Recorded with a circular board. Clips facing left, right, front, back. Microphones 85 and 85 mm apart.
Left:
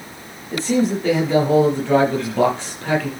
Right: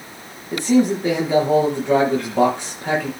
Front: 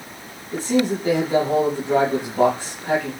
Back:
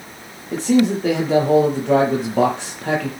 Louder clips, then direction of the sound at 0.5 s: Right 2 dB, back 4 dB; 165° right.